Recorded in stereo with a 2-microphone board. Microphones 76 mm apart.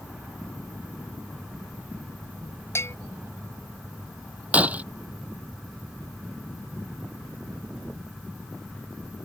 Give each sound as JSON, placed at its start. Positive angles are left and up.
{"t": 2.8, "sound": "a bell", "side_deg": 35}
{"t": 4.5, "sound": "breaking glass", "side_deg": -20}